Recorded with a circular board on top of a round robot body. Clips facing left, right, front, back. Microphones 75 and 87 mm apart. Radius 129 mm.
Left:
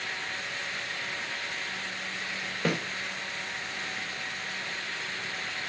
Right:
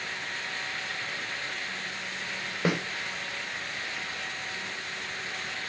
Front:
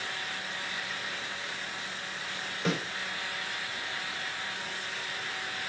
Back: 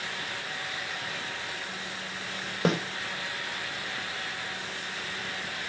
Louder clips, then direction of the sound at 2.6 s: Right 2 dB, back 5 dB; 160° right.